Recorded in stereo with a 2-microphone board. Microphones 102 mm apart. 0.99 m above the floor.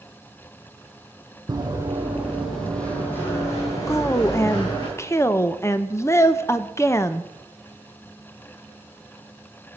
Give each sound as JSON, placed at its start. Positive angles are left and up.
{"t": 1.5, "sound": "running footsteps", "side_deg": -40, "distance_m": 2.0}
{"t": 3.9, "sound": "a woman speaking", "side_deg": 30, "distance_m": 0.6}